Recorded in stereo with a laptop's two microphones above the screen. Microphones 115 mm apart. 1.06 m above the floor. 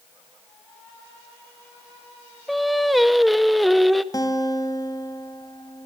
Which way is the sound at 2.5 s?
Centre (ahead or behind).